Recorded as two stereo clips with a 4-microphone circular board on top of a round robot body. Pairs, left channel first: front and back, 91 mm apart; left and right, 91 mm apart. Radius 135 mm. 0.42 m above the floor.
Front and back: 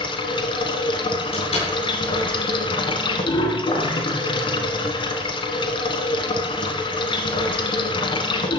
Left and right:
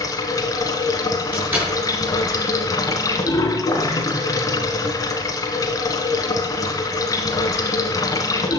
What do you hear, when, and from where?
0.0 s running water: 35° left, 1.6 m
1.3 s a door slam: 20° right, 7.5 m